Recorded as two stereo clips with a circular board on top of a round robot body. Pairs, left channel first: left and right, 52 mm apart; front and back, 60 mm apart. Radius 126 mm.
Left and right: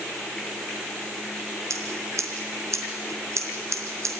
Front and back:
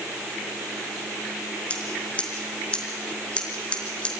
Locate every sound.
1.7 s scissors: 70° right, 4 m